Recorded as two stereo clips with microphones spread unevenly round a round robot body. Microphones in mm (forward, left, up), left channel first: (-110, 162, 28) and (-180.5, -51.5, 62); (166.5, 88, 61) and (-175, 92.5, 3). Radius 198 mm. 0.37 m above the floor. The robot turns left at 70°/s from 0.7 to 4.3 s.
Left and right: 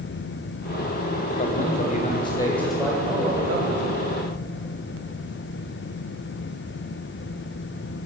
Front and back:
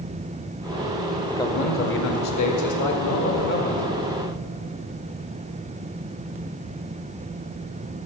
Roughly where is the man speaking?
Left.